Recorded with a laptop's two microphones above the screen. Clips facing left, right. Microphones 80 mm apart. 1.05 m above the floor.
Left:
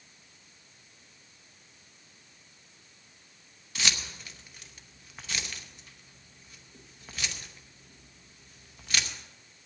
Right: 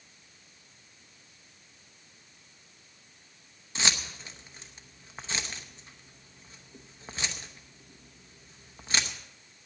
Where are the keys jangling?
30° right (ahead or behind), 0.8 m.